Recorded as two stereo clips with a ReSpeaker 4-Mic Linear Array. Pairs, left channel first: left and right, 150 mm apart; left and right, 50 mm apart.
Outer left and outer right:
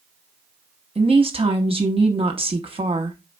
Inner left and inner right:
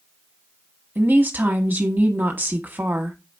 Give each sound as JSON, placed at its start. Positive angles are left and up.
{"t": 0.9, "sound": "a woman speaking", "side_deg": -35, "distance_m": 0.9}